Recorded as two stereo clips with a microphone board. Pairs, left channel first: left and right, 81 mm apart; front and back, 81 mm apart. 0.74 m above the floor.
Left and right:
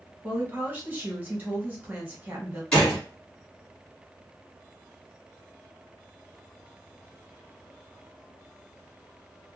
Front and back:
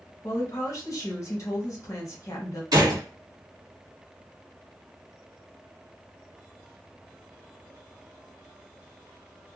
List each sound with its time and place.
0.2 s a woman speaking: 30° right, 1.2 m
2.7 s a gunshot: 170° left, 1.7 m